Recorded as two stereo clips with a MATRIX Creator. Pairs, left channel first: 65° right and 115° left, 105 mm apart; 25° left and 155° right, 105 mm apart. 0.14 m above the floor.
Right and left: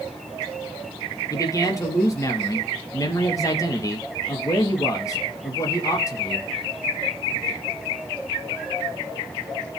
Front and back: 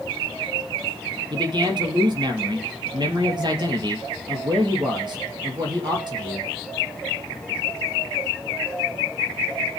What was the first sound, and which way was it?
A man speaking, 120° right.